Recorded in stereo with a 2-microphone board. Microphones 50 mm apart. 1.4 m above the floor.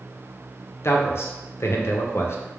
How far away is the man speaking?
About 0.6 m.